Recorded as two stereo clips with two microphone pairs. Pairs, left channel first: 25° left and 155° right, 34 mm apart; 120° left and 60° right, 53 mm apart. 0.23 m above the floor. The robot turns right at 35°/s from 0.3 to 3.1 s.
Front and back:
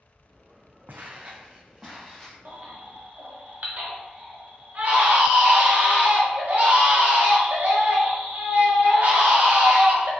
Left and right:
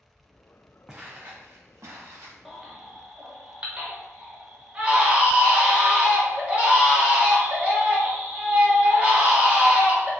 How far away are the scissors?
I don't hear scissors.